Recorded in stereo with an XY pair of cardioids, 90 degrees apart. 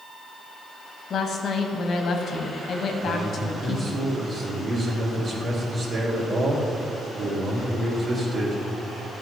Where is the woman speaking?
65° left, 1.4 m.